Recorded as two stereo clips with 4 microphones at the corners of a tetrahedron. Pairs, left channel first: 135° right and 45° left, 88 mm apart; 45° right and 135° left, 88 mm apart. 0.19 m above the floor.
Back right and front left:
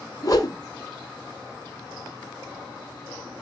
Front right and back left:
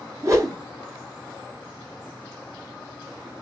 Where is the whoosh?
175° right, 1.3 m.